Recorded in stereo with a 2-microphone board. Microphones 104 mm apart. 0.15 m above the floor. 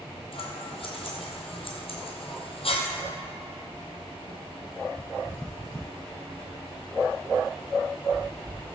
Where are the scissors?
65° left (ahead or behind), 1.9 m.